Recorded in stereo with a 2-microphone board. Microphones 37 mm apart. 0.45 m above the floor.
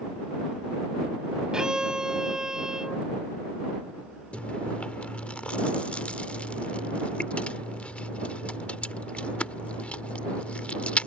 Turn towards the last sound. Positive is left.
turn(degrees=40)  # may be behind; listen again after turning